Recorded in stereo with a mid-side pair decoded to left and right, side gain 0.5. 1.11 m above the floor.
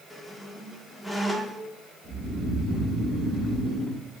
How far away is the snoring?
About 1.5 m.